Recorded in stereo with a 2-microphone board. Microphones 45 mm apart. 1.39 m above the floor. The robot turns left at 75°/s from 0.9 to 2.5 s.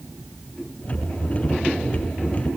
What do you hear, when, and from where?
Only background noise.